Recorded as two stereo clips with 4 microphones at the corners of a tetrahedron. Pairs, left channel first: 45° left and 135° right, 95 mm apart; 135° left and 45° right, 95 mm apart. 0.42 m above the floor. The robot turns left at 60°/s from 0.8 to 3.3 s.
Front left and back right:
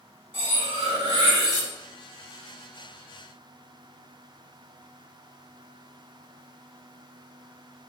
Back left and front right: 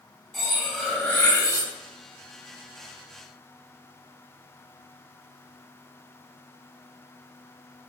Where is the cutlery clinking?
135° right, 1.2 m; by 1.7 s 170° left, 1.2 m.